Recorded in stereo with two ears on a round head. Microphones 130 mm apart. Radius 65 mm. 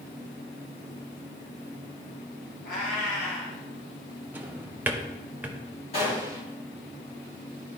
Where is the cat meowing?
65° left (ahead or behind), 2.5 m.